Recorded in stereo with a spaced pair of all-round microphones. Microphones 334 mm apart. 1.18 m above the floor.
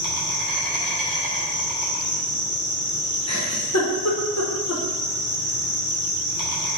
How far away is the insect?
About 2.5 m.